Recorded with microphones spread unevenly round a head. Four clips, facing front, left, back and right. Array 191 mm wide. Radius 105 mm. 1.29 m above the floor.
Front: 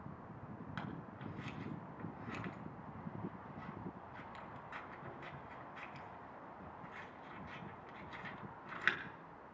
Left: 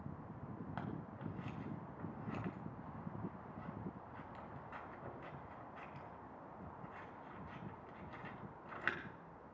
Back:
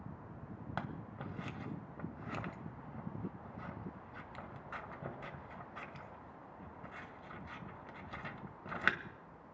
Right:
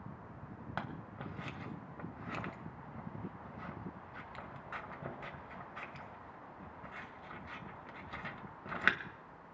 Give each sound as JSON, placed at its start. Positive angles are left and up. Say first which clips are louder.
{"t": 0.8, "sound": "scissors", "louder": "right 5 dB, back 4 dB", "azimuth_deg": -110, "distance_m": 1.6}